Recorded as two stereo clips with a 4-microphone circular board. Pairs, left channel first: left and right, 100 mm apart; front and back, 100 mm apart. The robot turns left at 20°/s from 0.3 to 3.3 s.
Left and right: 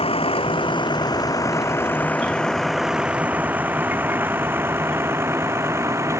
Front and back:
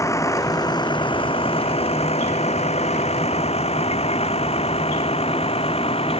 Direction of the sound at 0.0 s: 60° left.